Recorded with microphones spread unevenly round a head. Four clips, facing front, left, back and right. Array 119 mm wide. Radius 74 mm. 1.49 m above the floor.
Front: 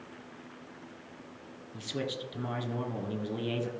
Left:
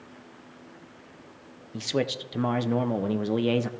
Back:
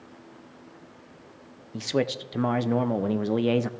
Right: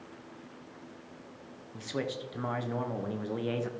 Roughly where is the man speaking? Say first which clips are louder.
Left 7 dB, back 9 dB; behind left.